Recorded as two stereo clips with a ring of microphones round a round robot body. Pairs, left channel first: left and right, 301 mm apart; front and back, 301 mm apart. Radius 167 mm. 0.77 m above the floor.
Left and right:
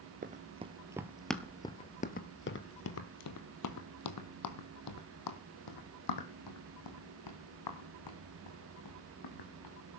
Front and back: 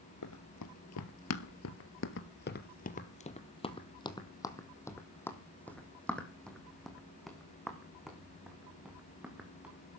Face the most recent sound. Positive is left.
turn(degrees=95)